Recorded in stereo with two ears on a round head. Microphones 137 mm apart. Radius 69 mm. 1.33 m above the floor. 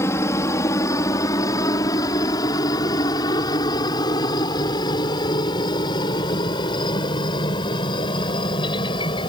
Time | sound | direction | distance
0.0 | a helicopter | 20° left (ahead or behind) | ?